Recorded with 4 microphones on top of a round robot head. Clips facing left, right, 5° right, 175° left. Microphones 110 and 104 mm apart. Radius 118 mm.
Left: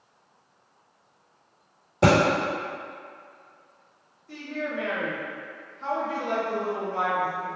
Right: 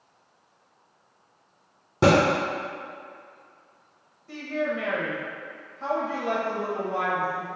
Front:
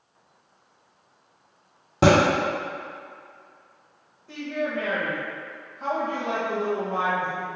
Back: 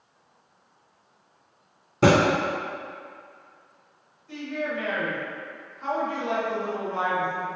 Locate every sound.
2.0 s a thud: 40° right, 1.8 m
4.3 s a woman speaking: 50° right, 1.1 m